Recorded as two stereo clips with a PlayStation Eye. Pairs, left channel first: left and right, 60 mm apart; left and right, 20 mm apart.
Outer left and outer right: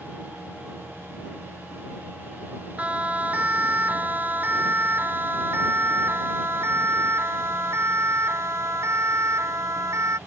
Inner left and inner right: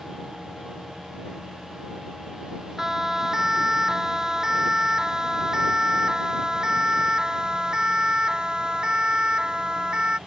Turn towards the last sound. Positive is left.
turn(degrees=-50)  # may be behind; listen again after turning